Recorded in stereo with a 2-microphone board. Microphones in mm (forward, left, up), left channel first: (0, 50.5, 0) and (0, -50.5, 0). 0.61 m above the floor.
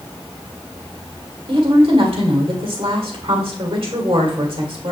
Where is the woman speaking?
75° right (ahead or behind), 1.8 m.